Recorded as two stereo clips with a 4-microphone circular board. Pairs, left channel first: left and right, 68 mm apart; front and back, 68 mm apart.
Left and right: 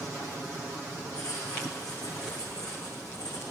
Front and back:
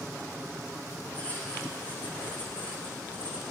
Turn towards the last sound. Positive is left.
turn(degrees=65)